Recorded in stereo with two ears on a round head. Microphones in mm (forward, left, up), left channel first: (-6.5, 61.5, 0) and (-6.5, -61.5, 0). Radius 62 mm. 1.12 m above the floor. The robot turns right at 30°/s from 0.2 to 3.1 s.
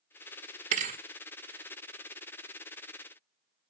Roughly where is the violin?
No violin in this recording.